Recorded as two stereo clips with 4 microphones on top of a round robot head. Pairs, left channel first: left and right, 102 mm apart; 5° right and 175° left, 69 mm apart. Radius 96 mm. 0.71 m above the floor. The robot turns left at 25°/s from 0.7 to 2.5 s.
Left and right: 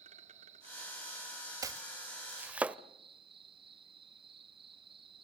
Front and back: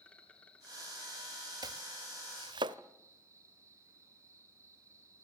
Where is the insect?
80° right, 2.5 m; by 5.2 s 125° right, 2.5 m.